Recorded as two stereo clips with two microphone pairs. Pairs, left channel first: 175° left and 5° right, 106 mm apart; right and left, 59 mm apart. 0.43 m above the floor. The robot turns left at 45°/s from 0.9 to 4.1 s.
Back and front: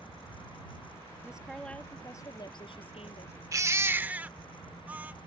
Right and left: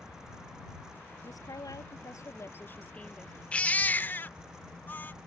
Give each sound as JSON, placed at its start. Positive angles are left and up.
{"t": 1.2, "sound": "a woman speaking", "azimuth_deg": -80}
{"t": 3.5, "sound": "a baby crying", "azimuth_deg": -40}